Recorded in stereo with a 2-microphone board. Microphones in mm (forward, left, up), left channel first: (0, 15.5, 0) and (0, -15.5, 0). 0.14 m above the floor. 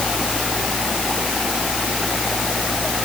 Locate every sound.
Only background noise.